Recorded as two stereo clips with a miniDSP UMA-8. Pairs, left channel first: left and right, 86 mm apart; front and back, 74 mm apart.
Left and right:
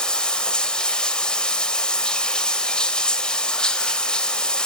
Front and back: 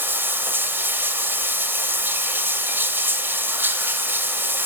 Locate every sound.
0.0 s running water: 160° left, 1.5 m